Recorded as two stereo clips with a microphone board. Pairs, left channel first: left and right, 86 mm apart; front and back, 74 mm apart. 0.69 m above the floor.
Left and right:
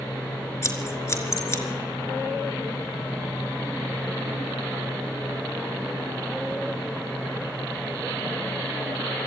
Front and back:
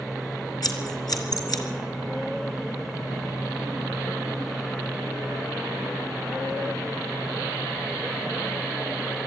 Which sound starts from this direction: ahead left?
Scissors, at 0.6 s.